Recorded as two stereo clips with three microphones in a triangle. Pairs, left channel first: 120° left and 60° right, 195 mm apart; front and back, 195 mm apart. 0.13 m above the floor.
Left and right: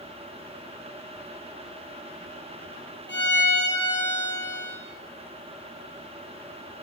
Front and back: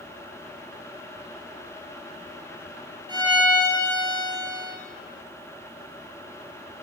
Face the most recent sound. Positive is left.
turn(degrees=115)